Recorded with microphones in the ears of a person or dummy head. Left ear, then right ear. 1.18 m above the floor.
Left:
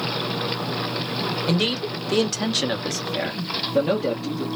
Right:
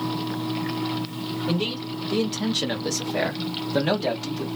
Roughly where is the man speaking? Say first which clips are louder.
Left 2 dB; left.